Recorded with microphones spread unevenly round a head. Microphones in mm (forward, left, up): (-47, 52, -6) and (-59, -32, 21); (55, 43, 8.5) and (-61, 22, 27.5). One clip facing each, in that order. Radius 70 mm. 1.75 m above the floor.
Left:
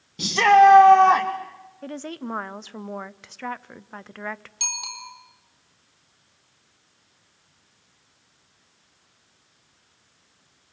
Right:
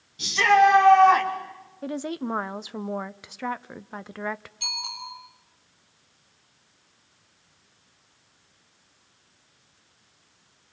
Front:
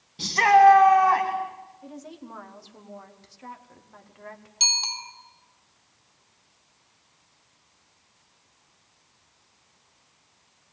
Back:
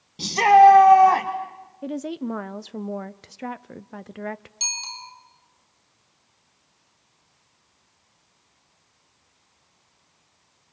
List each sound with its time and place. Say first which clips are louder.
0.2 s a shout: left 4 dB, back 3 dB; 115° left, 1.6 m; by 1.3 s 145° left, 3 m
1.8 s a woman speaking: right 3 dB, back 15 dB; 165° right, 0.6 m
4.6 s a bicycle bell: even, front 2 dB; 35° left, 4 m